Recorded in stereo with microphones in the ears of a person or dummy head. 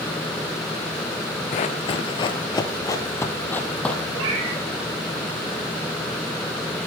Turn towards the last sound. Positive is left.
turn(degrees=-80)